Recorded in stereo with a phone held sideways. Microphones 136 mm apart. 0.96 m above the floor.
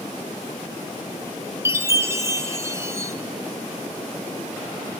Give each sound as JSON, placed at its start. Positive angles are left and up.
{"t": 1.6, "sound": "a chime", "side_deg": -20, "distance_m": 0.7}